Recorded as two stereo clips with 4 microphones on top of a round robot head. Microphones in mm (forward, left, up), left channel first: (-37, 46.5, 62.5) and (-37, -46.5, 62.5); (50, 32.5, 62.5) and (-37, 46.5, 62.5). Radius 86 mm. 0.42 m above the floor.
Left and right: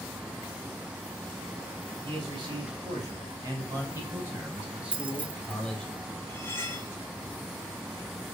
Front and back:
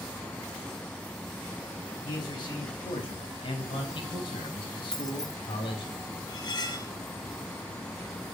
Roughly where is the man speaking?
Ahead right.